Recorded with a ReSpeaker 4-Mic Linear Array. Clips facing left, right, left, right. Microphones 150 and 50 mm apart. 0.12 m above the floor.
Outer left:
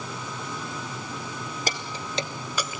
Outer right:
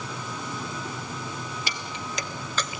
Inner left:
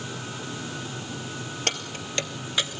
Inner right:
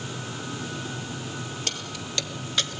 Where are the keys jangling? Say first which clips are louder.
Outer left 2 dB, inner left 3 dB; 45° left (ahead or behind), 1.6 m; by 2.8 s centre (ahead or behind), 0.9 m.